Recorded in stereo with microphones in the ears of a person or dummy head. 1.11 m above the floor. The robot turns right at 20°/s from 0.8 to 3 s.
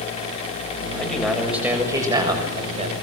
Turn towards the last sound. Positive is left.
turn(degrees=-145)